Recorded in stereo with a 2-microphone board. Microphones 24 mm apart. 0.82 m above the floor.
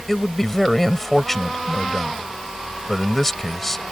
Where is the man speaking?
15° left (ahead or behind).